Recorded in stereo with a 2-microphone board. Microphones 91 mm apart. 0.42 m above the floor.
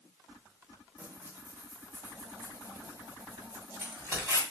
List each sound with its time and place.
1.0 s tearing paper: 25° right (ahead or behind), 1.6 m